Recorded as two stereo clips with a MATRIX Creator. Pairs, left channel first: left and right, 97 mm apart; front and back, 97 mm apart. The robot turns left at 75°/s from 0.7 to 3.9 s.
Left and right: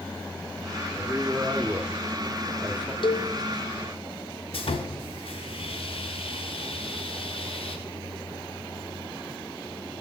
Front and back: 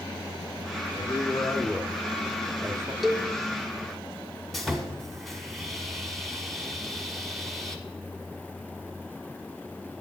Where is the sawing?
90° left, 1.3 m.